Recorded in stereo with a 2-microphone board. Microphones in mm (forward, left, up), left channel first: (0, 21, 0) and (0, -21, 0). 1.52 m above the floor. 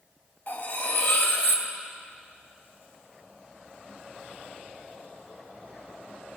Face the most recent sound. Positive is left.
turn(degrees=60)  # may be behind; listen again after turning